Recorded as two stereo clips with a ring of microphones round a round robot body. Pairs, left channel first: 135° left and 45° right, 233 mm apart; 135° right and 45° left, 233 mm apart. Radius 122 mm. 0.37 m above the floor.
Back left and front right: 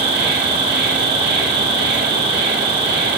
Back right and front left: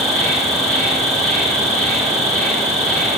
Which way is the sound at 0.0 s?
45° right.